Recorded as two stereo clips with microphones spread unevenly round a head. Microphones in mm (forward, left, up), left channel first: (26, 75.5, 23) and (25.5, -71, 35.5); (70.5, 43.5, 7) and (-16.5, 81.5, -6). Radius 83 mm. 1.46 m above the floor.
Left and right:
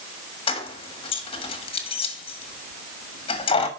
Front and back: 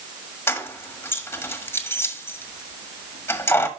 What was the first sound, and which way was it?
Keys jangling, 35° left.